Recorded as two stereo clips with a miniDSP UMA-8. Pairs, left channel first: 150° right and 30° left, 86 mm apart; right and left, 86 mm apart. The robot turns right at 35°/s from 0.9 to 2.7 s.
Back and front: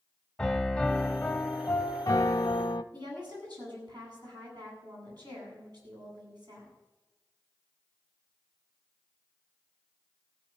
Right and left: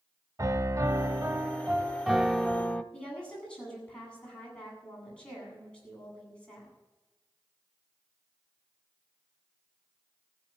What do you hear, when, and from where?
0.4 s a piano: 125° left, 0.9 m; by 2.8 s 170° right, 0.9 m
2.9 s a woman speaking: 10° right, 8.5 m